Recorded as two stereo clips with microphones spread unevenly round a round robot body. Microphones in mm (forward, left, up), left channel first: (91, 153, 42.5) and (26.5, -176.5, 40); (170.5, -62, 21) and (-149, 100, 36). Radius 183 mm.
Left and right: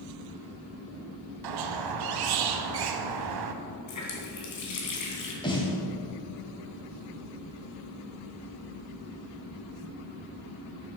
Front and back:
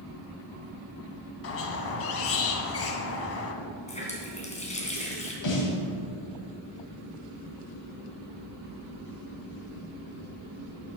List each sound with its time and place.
1.4 s a squeak: 80° right, 0.9 m
3.9 s a running tap: 45° left, 2.5 m
5.4 s a snare drum: 5° left, 2.5 m